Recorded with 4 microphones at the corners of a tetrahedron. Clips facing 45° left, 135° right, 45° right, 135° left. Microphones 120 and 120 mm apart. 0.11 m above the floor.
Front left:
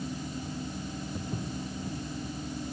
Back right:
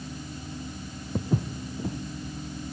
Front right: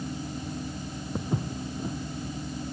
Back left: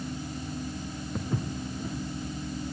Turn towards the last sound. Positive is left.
turn(degrees=-115)